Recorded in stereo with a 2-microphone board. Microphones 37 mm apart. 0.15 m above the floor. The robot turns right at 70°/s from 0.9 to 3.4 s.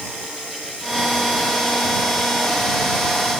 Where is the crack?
No crack in this recording.